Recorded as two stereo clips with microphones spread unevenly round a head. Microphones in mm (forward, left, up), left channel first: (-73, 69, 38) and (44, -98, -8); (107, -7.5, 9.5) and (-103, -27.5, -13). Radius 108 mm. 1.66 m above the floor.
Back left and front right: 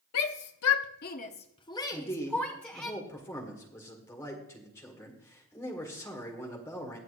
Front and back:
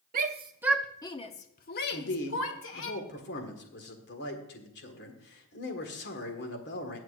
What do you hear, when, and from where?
0.1 s a shout: 130° left, 0.6 m; by 2.9 s 35° left, 1.5 m
1.9 s a man speaking: 45° left, 1.6 m